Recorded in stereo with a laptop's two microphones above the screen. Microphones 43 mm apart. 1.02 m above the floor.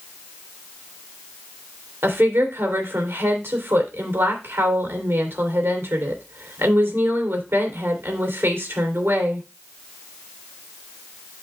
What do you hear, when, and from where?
2.0 s a woman speaking: 65° right (ahead or behind), 3 m